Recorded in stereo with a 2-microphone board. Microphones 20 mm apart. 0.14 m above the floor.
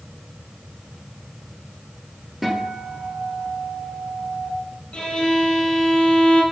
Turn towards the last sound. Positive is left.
turn(degrees=70)  # may be behind; listen again after turning